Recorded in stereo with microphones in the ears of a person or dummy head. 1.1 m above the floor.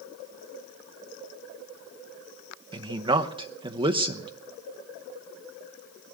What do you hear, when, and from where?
2.7 s a man speaking: 25° right (ahead or behind), 0.7 m